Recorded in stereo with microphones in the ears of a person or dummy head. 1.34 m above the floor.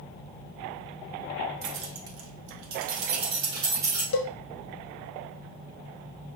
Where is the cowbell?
50° left (ahead or behind), 0.6 m.